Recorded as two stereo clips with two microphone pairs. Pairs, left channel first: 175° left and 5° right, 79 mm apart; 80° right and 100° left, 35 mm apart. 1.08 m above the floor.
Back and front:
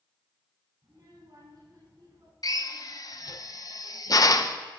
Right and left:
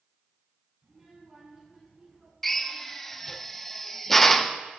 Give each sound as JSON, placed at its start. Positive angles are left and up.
{"t": 0.8, "sound": "a child speaking", "azimuth_deg": 40, "distance_m": 8.5}
{"t": 2.4, "sound": "a drill", "azimuth_deg": -165, "distance_m": 0.7}